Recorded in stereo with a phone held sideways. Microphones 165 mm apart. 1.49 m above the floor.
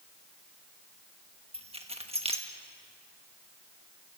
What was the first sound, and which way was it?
Keys jangling, 35° right (ahead or behind).